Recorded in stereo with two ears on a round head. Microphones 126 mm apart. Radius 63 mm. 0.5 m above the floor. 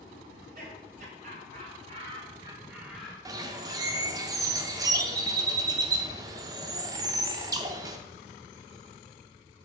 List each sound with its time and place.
0.3 s laughter: 65° right (ahead or behind), 3 m; by 4.2 s 45° left (ahead or behind), 1.9 m
3.2 s a bird: 25° right (ahead or behind), 0.7 m